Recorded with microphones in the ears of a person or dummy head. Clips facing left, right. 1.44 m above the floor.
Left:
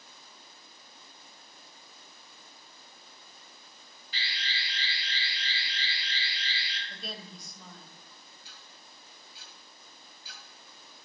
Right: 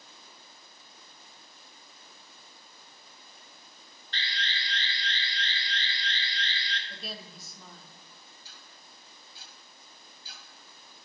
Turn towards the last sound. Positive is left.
turn(degrees=-35)  # may be behind; listen again after turning